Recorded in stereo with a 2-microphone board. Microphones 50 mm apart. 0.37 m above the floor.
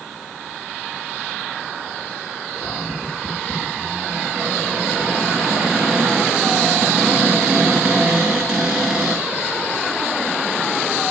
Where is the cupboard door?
10° right (ahead or behind), 8.5 m.